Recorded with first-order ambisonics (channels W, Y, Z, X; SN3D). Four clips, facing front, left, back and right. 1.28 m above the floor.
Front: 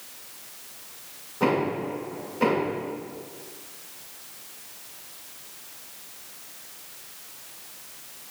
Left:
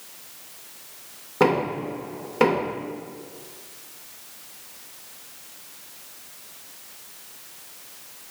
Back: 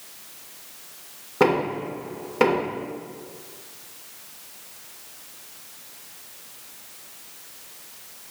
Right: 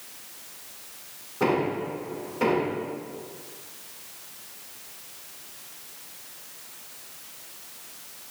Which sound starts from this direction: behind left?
Knocking, at 1.4 s.